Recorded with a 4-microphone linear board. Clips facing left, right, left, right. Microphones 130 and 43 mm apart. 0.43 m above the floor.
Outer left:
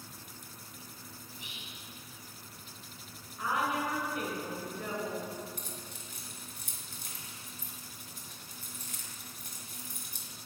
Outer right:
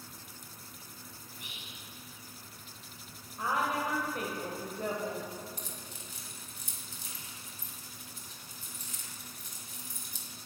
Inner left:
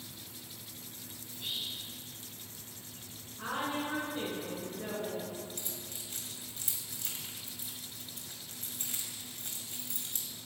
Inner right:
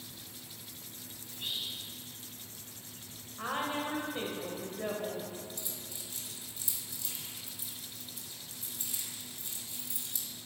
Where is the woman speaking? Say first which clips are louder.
Outer right 1 dB, inner right 1 dB; 45° right (ahead or behind), 2 m.